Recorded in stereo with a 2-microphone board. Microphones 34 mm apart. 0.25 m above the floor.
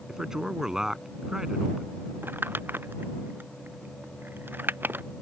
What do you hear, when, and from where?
0.1 s a man speaking: 20° right (ahead or behind)
2.2 s crumpling: 90° right